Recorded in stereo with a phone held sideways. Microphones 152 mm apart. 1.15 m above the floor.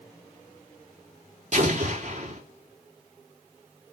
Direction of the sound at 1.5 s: 50° right (ahead or behind).